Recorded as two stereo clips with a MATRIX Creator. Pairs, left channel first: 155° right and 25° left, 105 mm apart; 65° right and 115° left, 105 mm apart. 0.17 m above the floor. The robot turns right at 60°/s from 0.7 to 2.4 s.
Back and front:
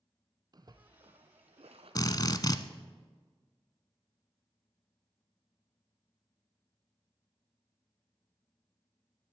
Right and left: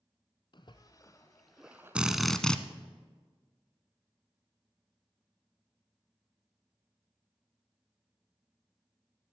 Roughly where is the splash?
Ahead right.